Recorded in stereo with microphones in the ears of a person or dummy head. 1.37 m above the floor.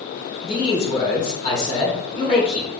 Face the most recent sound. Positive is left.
turn(degrees=35)  # may be behind; listen again after turning